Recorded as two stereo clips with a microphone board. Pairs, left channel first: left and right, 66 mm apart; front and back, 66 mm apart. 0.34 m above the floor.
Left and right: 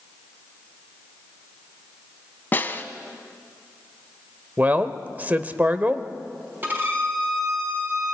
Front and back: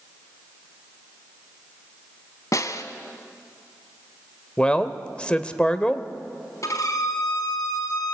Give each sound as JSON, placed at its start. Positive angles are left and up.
{"t": 2.5, "sound": "a snare drum", "azimuth_deg": 30, "distance_m": 1.3}
{"t": 4.6, "sound": "a man speaking", "azimuth_deg": -55, "distance_m": 1.0}
{"t": 6.6, "sound": "a violin", "azimuth_deg": -35, "distance_m": 4.0}